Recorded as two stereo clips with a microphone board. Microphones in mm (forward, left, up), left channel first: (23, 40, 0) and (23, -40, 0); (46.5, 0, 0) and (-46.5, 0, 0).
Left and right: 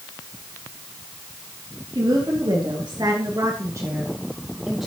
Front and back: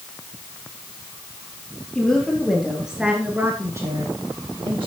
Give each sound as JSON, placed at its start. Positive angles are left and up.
{"t": 1.9, "sound": "a woman speaking", "azimuth_deg": -85, "distance_m": 4.0}